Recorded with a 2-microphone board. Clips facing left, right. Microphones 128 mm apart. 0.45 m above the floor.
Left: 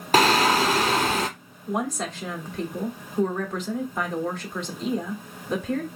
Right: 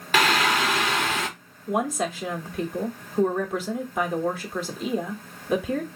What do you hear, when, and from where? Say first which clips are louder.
0.1 s singing: left 3 dB; 35° left (ahead or behind), 0.6 m
1.7 s a woman speaking: right 3 dB; 5° right (ahead or behind), 1.0 m